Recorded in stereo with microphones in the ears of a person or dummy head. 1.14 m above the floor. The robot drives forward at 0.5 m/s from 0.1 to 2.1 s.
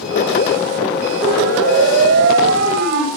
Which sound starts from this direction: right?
A siren, at 1.2 s.